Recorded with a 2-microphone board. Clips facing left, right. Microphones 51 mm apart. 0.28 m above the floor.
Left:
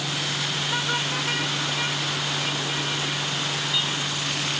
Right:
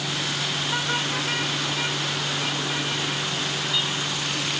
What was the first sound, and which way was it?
Only background noise.